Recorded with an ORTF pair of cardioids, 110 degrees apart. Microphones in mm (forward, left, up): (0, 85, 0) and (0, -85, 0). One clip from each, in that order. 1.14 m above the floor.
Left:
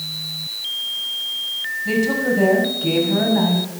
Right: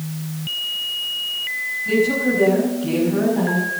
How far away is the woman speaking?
About 6.5 m.